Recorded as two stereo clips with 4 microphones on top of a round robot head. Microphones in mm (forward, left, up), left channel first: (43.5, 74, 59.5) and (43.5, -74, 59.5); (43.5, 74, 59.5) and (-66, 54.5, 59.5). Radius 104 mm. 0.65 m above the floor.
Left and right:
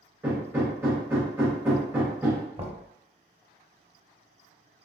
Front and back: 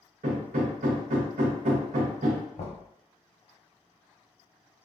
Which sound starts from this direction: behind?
Hammering, at 0.2 s.